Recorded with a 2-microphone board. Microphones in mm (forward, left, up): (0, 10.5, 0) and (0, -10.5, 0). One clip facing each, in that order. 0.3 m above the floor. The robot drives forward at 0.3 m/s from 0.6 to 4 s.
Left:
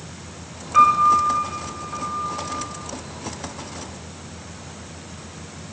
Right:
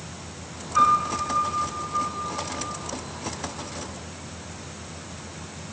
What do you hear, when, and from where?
0.7 s a piano: 50° left (ahead or behind), 0.9 m; by 2.7 s 80° left, 0.7 m